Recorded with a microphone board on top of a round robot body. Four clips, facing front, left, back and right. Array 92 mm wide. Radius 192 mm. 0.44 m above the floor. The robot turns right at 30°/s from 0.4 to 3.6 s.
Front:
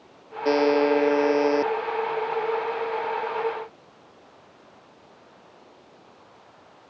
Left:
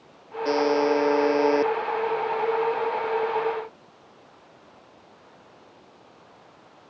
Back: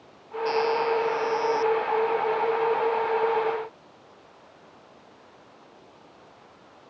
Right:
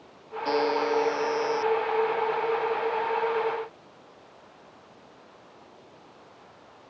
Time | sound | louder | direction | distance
0.5 | a buzzer | left 4 dB, front 4 dB | 10° left | ?